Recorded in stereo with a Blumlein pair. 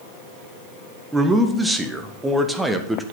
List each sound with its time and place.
1.1 s a man speaking: 5° right, 1.5 m